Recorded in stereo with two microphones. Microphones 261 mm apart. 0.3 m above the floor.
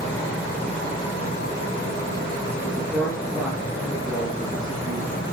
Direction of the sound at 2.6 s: 5° left (ahead or behind).